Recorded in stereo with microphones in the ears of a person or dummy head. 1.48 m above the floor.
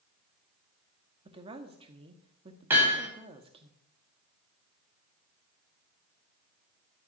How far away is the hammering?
About 5.5 m.